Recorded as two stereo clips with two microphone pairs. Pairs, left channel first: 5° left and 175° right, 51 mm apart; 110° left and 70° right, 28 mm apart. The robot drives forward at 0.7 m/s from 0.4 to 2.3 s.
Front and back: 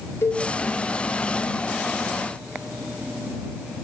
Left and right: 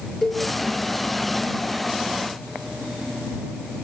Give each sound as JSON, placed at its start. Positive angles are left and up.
{"t": 0.2, "sound": "a cowbell", "azimuth_deg": 30, "distance_m": 3.5}